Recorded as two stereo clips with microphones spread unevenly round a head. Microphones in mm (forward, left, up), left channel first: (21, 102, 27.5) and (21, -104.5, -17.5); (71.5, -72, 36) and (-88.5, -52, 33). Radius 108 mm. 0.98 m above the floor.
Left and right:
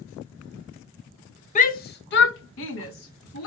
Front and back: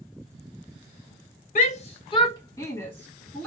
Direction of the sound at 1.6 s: 35° left.